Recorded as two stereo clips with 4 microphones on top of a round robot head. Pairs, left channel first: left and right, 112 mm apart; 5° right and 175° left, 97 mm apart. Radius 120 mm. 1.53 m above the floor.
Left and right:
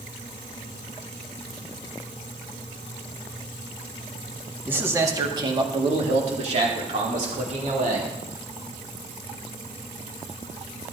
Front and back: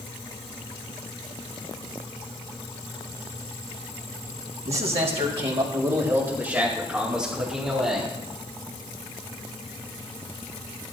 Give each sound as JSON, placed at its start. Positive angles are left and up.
{"t": 4.7, "sound": "a man speaking", "azimuth_deg": -165, "distance_m": 1.9}